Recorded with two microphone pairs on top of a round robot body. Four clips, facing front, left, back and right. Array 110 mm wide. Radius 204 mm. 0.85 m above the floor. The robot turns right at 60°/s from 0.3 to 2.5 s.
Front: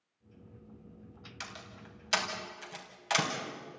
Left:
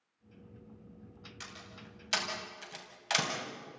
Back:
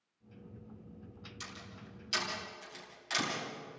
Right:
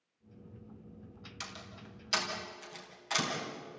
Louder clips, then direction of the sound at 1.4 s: Right 3 dB, front 4 dB; 20° right.